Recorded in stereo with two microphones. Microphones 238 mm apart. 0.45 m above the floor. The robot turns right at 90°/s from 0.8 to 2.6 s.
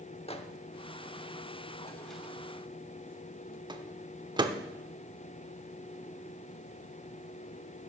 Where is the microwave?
25° left (ahead or behind), 0.9 m; by 4.6 s 20° right (ahead or behind), 0.9 m.